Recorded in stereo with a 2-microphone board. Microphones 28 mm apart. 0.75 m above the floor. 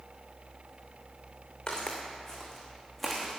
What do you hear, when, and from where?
1.7 s footsteps: 35° left (ahead or behind), 3 m; by 3.4 s 5° right (ahead or behind), 3 m